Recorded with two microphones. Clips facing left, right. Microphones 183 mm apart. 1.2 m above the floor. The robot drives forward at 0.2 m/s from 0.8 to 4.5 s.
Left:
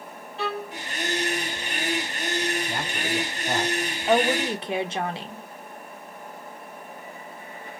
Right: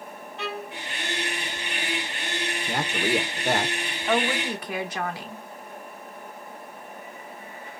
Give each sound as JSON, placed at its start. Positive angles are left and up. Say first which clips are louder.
{"t": 0.4, "sound": "a violin", "louder": "left 4 dB", "side_deg": 35, "distance_m": 1.0}
{"t": 2.7, "sound": "a man speaking", "louder": "right 4 dB", "side_deg": -75, "distance_m": 0.6}
{"t": 4.1, "sound": "a woman speaking", "louder": "left 3 dB", "side_deg": 30, "distance_m": 0.8}